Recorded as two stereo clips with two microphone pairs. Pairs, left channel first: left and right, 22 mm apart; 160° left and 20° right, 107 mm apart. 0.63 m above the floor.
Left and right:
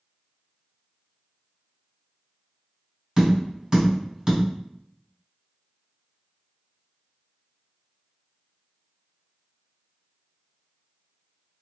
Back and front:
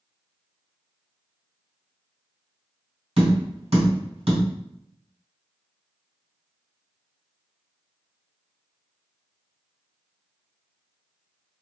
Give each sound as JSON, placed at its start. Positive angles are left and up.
{"t": 3.2, "sound": "tapping", "azimuth_deg": -25, "distance_m": 1.9}